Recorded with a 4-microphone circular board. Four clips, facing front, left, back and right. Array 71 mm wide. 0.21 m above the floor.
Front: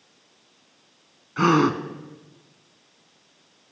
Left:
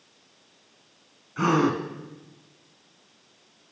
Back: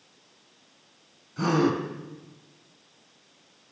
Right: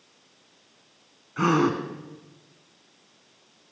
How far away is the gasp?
About 2.5 m.